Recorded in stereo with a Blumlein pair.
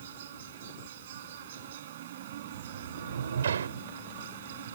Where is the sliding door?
70° right.